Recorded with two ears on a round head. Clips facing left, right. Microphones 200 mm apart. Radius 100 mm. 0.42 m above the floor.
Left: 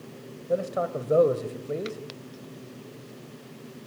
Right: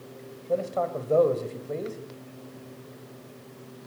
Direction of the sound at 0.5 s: 15° left (ahead or behind).